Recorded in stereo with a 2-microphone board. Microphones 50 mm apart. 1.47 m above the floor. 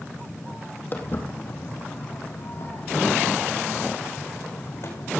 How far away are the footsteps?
About 3.5 m.